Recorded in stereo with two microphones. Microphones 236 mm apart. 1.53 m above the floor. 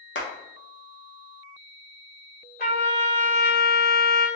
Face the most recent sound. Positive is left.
turn(degrees=40)  # may be behind; listen again after turning